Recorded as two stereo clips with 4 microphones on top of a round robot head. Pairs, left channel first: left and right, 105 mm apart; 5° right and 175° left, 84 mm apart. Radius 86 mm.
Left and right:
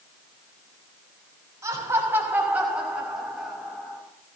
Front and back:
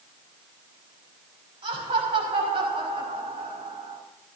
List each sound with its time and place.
1.6 s laughter: 155° right, 6.5 m; by 4.0 s 170° left, 6 m